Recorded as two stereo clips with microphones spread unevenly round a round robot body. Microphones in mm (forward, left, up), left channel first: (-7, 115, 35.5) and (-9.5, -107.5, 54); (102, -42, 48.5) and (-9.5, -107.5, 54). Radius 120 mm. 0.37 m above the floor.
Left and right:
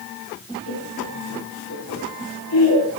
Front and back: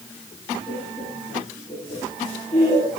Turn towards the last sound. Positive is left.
turn(degrees=105)